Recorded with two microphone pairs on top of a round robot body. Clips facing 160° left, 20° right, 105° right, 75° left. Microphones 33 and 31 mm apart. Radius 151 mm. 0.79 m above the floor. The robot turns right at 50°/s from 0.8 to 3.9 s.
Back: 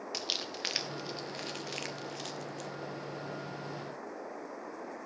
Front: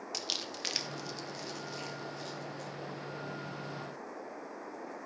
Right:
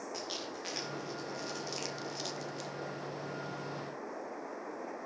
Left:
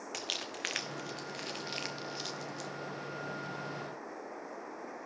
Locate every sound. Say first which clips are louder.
0.1 s crumpling: back 1 dB, left 5 dB; 80° left, 1.3 m; by 2.7 s 175° left, 1.3 m